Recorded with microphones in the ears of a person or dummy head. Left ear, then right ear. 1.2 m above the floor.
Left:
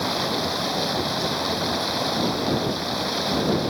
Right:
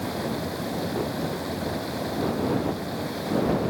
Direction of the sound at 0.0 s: 45° left (ahead or behind).